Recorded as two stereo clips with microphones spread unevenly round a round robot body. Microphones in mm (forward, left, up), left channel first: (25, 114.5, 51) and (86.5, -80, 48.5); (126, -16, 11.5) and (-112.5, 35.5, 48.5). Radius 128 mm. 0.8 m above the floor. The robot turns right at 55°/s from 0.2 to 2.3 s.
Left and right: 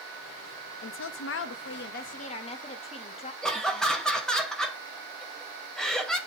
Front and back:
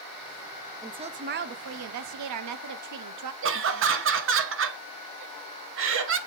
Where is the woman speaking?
85° left, 0.8 m; by 3.3 s 170° left, 0.8 m.